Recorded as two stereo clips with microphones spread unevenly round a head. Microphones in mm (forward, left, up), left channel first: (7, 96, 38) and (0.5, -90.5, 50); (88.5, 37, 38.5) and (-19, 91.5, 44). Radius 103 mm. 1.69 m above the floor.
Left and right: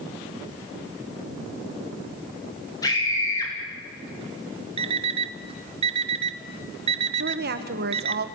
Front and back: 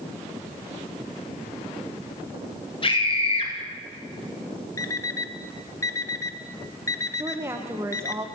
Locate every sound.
2.8 s a scream: 15° left, 9 m
4.8 s an alarm clock: 85° right, 0.8 m
7.2 s a woman speaking: 130° right, 1.9 m